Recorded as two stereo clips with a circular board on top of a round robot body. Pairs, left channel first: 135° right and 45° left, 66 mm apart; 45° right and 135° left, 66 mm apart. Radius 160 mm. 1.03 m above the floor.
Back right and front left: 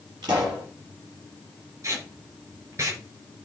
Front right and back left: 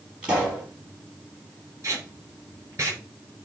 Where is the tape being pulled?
90° left, 5 m.